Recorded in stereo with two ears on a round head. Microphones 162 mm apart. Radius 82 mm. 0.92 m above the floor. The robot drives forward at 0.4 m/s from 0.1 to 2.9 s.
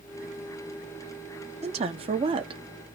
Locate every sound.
1.6 s a woman speaking: 35° right (ahead or behind), 1.3 m; by 2.6 s 30° right (ahead or behind), 1.6 m